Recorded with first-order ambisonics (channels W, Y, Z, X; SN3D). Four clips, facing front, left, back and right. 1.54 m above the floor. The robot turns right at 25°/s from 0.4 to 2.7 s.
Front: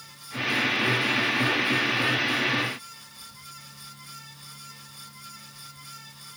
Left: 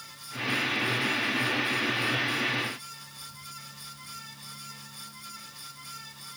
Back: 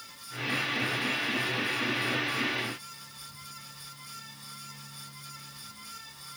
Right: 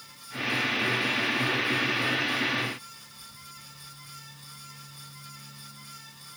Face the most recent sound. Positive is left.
No sound to turn to.